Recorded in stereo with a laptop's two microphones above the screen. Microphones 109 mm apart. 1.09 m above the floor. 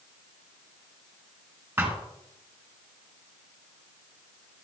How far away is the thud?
About 2.5 m.